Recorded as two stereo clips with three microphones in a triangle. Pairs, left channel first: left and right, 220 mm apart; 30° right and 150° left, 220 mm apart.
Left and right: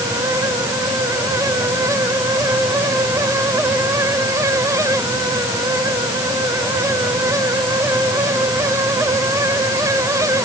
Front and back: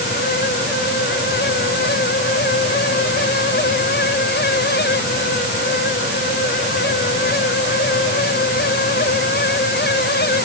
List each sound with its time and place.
Only background noise.